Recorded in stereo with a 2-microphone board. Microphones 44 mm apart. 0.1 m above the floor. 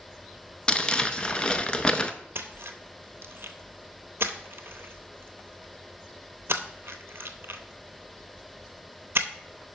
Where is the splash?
60° right (ahead or behind), 0.7 m.